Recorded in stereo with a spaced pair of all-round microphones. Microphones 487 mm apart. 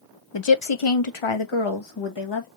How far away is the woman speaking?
About 0.7 m.